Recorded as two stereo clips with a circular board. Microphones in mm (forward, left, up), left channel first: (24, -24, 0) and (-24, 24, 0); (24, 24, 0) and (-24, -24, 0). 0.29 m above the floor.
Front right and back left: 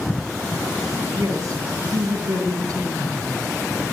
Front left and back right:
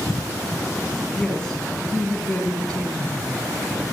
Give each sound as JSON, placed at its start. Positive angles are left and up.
{"t": 1.1, "sound": "a woman speaking", "azimuth_deg": 125, "distance_m": 2.5}